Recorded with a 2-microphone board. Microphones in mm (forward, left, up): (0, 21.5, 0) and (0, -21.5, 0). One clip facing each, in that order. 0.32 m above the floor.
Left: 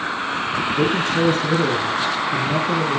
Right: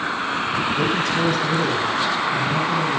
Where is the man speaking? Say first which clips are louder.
Left 4 dB; 25° left (ahead or behind), 5 m; by 3.0 s 50° left (ahead or behind), 7.5 m.